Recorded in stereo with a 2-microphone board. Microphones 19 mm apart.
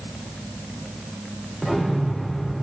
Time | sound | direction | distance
1.6 | an explosion | 15° right (ahead or behind) | 3 m